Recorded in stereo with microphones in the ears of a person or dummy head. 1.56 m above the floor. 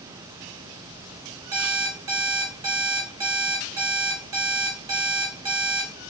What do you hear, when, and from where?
1.5 s an alarm clock: 20° right (ahead or behind), 1.7 m